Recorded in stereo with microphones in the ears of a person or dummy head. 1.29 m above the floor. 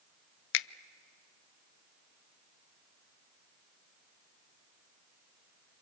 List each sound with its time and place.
0.5 s a finger snap: 60° left (ahead or behind), 0.5 m